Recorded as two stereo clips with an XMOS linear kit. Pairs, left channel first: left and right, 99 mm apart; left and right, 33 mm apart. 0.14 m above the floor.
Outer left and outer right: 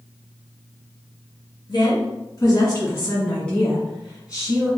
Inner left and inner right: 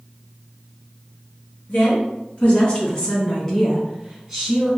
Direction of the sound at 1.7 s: 50° left (ahead or behind).